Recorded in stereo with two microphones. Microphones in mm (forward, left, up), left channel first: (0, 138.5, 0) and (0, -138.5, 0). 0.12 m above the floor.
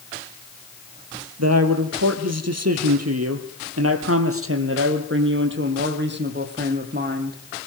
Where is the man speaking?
65° right (ahead or behind), 4 m; by 7.4 s 35° right (ahead or behind), 6 m.